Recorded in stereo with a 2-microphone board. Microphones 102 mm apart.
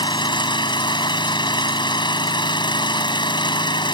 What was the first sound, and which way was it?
An engine running, 50° left (ahead or behind).